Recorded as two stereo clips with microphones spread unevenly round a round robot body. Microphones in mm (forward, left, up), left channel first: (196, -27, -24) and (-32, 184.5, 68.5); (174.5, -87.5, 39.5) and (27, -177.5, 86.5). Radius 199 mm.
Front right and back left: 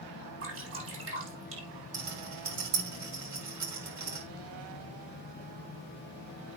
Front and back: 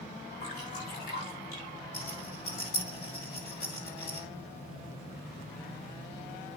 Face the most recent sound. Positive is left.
turn(degrees=100)